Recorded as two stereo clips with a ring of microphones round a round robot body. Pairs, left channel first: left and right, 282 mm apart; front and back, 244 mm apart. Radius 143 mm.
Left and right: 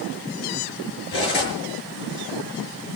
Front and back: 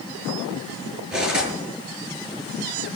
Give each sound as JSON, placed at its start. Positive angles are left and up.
{"t": 1.1, "sound": "cutlery clinking", "azimuth_deg": 95, "distance_m": 6.5}